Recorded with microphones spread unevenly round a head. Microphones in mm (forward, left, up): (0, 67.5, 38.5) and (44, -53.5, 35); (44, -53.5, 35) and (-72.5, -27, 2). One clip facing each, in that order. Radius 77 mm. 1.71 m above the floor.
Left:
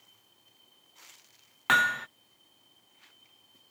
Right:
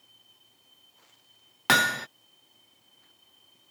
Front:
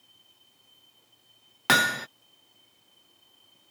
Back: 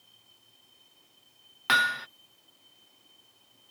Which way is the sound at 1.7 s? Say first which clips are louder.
Right 2 dB, front 3 dB; 20° right.